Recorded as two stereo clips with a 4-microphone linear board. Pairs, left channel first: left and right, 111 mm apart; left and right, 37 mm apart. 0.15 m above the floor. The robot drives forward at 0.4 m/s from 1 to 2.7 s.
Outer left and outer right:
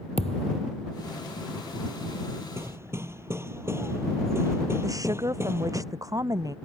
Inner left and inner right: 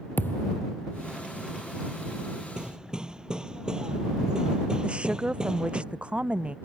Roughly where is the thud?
Left.